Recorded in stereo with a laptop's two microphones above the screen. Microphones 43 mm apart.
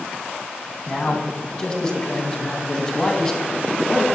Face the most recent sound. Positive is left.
turn(degrees=10)  # may be behind; listen again after turning